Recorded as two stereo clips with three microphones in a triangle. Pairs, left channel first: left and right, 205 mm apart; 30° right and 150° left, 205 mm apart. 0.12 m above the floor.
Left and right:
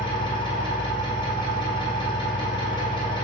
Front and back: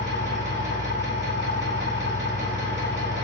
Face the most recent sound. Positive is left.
turn(degrees=155)